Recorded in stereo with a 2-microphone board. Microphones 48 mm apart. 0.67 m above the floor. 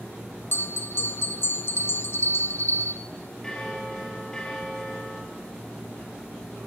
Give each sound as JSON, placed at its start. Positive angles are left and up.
{"t": 0.5, "sound": "a bell", "side_deg": 55, "distance_m": 0.5}
{"t": 3.4, "sound": "a bell", "side_deg": 15, "distance_m": 3.5}